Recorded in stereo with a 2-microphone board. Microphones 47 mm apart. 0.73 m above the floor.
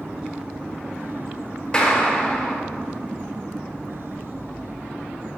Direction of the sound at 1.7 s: 20° left (ahead or behind).